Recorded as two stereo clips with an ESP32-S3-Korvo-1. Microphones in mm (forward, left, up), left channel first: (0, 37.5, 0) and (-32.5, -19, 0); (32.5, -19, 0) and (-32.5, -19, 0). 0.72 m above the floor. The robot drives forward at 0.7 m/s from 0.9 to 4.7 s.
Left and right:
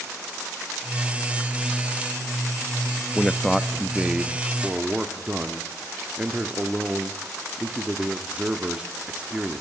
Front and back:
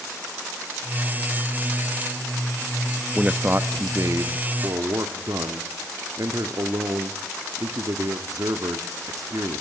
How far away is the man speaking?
About 0.5 m.